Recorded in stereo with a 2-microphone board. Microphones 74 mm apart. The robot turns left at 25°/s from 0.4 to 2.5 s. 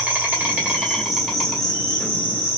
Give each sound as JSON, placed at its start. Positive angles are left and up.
{"t": 0.0, "sound": "an insect", "azimuth_deg": -160, "distance_m": 1.3}